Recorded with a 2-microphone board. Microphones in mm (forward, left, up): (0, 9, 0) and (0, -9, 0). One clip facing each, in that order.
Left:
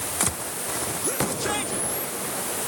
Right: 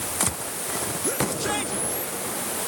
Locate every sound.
Only background noise.